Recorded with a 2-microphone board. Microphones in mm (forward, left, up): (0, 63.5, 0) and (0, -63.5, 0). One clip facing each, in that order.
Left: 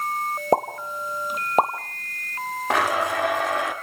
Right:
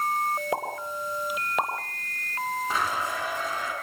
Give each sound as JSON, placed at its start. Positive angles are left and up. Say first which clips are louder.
{"t": 0.5, "sound": "a pop", "louder": "left 8 dB", "side_deg": 40, "distance_m": 2.0}
{"t": 2.7, "sound": "a blender", "louder": "left 11 dB", "side_deg": 70, "distance_m": 2.5}